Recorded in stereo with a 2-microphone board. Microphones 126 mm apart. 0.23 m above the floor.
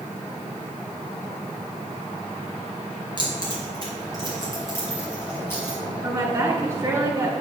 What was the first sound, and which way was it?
Keys jangling, 35° left (ahead or behind).